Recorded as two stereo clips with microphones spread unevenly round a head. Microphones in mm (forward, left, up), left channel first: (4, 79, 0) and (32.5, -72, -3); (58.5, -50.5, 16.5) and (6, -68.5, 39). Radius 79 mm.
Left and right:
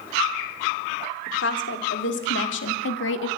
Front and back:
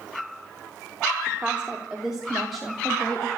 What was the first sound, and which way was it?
A woman speaking, 120° left.